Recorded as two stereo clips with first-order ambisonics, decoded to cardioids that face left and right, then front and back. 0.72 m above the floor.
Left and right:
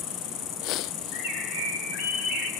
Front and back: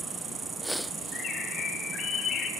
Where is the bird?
60° left, 4 m.